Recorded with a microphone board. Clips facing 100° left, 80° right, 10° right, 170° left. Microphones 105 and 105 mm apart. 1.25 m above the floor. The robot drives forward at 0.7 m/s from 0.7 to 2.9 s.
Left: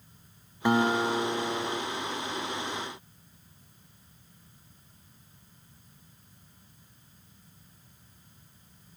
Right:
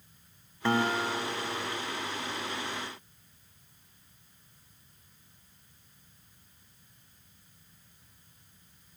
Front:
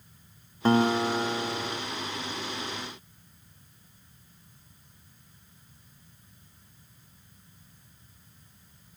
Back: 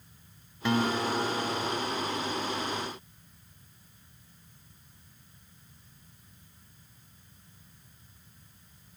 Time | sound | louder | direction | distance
0.7 | a guitar | left 4 dB, front 5 dB | 30° left | 0.9 m